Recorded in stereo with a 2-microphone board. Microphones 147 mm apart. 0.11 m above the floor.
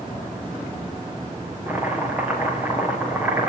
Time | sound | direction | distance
1.7 | chopping | 10° right (ahead or behind) | 6 m